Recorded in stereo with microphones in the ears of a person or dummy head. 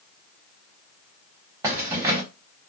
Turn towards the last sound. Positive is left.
turn(degrees=-20)  # may be behind; listen again after turning